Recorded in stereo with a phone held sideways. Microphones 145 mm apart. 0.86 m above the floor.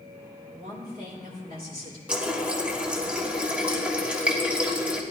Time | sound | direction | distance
0.5 | a woman speaking | 80° right | 3 m
2.1 | a running tap | 5° right (ahead or behind) | 1.3 m